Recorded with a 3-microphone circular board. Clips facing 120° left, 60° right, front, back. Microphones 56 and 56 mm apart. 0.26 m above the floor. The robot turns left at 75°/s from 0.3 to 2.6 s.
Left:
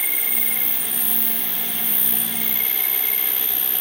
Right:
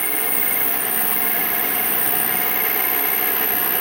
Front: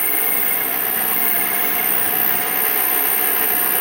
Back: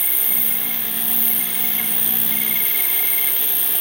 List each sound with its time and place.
0.0 s an insect: 35° left, 1.6 m; by 3.8 s 135° right, 1.6 m